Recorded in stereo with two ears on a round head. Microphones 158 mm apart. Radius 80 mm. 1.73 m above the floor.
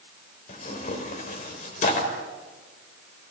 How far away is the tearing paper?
About 4.5 m.